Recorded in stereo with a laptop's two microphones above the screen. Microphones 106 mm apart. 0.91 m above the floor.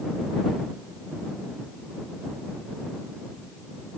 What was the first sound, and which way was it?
Only background noise.